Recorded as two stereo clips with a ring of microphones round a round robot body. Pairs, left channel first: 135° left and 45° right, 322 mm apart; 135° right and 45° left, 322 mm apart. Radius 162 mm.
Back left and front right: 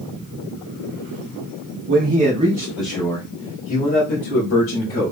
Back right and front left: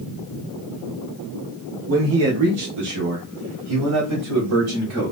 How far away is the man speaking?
About 1.0 m.